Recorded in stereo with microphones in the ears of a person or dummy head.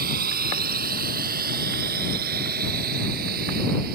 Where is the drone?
45° right (ahead or behind).